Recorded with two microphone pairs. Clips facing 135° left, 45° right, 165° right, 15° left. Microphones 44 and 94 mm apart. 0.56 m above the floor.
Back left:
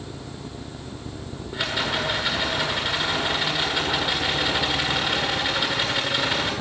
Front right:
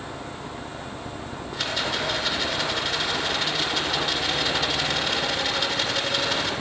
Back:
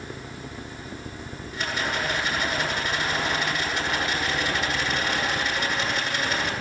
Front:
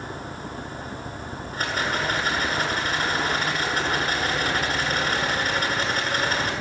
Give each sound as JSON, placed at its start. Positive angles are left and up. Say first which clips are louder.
{"t": 1.5, "sound": "a rattle", "louder": "back left 2 dB, front 2 dB", "azimuth_deg": 60, "distance_m": 8.5}